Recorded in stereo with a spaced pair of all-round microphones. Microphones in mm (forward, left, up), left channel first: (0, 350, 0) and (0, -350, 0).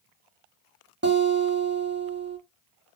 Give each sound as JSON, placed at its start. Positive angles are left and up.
{"t": 1.0, "sound": "a guitar", "side_deg": -20, "distance_m": 0.7}